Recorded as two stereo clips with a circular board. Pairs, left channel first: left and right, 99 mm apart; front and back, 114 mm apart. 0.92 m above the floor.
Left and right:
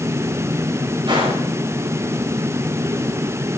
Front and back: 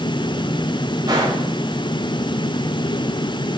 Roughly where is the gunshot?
Behind right.